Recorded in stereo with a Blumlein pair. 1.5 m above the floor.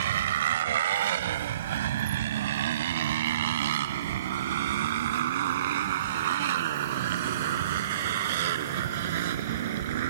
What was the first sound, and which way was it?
A motorcycle, 60° right.